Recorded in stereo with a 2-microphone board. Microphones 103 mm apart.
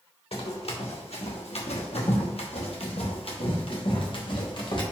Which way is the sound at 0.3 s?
70° left (ahead or behind).